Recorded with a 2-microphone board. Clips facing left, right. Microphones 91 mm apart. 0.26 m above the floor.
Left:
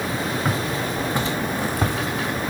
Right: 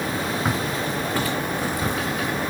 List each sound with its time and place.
0.5 s footsteps: 10° right (ahead or behind), 2 m; by 2.0 s 60° left (ahead or behind), 1.8 m